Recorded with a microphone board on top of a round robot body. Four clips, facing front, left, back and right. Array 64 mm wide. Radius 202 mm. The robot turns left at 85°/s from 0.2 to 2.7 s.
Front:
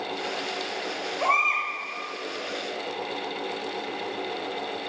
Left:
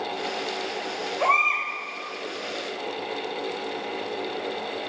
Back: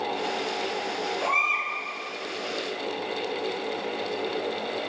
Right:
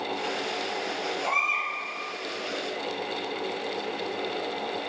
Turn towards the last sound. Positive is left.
turn(degrees=-55)